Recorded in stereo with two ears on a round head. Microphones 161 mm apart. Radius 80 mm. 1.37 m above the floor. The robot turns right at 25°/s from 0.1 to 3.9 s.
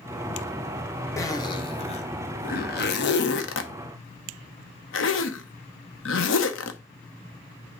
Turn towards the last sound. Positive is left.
turn(degrees=80)